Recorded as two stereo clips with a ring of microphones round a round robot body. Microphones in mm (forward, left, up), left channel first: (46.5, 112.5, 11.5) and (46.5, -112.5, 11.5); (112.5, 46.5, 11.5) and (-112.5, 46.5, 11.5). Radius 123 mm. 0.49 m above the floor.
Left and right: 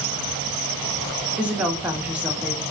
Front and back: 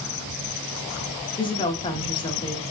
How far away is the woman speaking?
About 0.7 m.